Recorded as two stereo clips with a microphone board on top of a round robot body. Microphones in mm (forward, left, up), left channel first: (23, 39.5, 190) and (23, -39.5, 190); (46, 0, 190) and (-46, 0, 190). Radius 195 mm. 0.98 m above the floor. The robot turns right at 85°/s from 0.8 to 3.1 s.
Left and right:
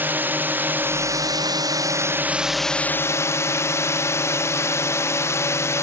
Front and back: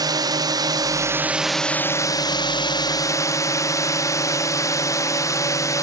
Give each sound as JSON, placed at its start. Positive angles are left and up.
{"t": 0.0, "sound": "a drone", "azimuth_deg": -150}